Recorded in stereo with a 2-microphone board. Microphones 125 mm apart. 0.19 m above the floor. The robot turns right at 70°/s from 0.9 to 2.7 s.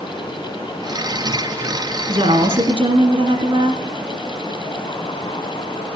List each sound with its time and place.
2.1 s a woman speaking: 105° right, 1.7 m; by 3.8 s 65° right, 1.7 m